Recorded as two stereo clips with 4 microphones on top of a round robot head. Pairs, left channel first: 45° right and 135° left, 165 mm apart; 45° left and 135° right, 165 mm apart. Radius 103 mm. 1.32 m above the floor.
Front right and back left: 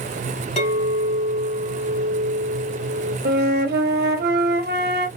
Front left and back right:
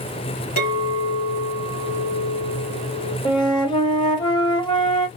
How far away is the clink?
About 3 m.